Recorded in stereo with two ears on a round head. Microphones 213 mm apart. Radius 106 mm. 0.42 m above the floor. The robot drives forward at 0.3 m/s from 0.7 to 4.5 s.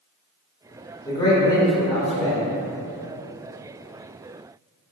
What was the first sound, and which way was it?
A man speaking, 20° left (ahead or behind).